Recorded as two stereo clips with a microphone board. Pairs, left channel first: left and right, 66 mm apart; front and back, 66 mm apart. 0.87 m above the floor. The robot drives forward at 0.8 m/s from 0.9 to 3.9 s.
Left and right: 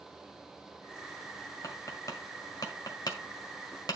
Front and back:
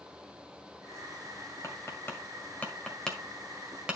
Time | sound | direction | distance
1.6 | tapping | 50° left | 2 m